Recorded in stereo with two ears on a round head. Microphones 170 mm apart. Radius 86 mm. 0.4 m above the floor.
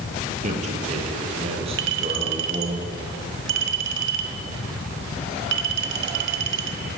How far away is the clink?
About 2.5 m.